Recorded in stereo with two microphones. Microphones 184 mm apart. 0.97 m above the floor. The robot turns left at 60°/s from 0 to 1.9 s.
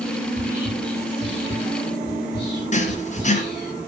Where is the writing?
40° left (ahead or behind), 3 m.